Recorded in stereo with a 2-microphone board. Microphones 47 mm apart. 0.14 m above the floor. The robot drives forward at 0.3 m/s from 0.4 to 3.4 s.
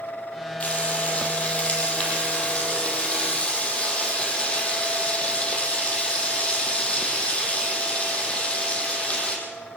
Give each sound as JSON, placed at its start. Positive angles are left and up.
{"t": 0.6, "sound": "frying", "side_deg": 30, "distance_m": 5.5}